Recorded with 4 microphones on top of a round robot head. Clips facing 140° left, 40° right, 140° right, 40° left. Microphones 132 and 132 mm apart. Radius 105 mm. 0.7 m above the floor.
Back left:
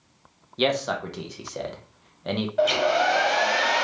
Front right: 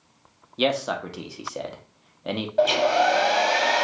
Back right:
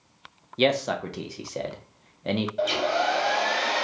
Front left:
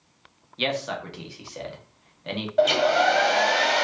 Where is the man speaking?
125° right, 0.7 m.